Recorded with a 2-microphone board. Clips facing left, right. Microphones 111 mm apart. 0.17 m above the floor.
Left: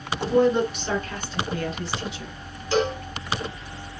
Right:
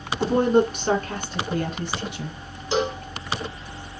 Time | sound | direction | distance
0.2 | a woman speaking | 45° right (ahead or behind) | 2.5 m
2.7 | a cowbell | 20° right (ahead or behind) | 1.8 m